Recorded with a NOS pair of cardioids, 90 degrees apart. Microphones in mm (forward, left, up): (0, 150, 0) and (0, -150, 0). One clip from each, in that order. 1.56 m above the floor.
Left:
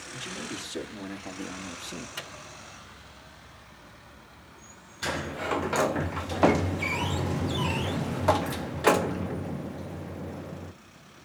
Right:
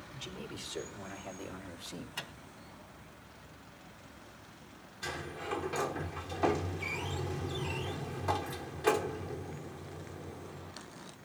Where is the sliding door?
45° left, 0.5 m.